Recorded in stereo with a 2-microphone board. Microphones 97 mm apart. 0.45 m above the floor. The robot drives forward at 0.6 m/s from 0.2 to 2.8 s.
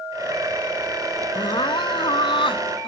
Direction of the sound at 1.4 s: 55° left (ahead or behind).